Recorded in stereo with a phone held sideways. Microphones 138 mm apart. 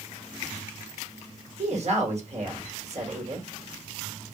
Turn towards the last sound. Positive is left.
turn(degrees=-50)  # may be behind; listen again after turning